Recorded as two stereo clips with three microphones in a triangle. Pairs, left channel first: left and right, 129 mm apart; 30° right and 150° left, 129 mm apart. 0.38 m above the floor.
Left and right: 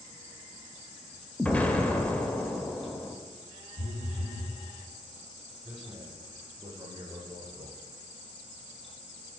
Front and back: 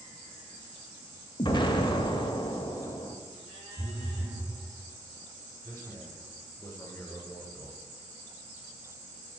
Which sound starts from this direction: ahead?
An explosion, at 1.4 s.